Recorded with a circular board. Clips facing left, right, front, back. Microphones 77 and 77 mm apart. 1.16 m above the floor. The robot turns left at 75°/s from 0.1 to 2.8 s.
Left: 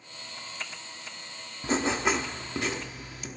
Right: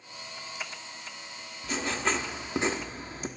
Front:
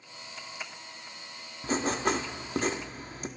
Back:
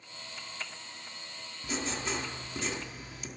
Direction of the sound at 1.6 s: 45° left.